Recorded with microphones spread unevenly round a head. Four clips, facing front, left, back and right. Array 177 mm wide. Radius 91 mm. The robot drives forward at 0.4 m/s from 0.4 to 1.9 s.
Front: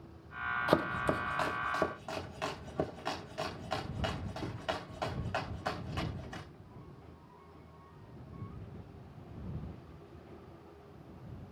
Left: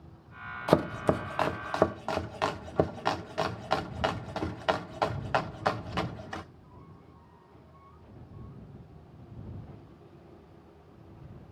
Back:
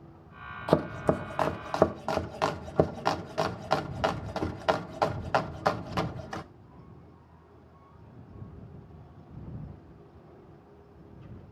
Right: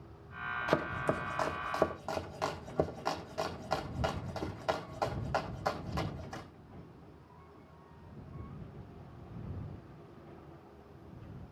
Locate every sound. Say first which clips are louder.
0.7 s chopping: left 7 dB, back 6 dB; 125° left, 0.7 m; by 6.4 s 155° left, 1.0 m